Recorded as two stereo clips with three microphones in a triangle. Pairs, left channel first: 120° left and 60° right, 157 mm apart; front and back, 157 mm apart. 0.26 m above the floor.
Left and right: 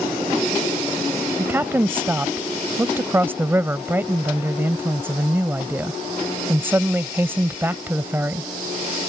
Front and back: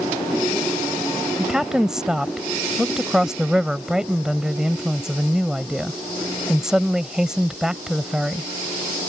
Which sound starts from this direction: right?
A woman speaking, at 1.4 s.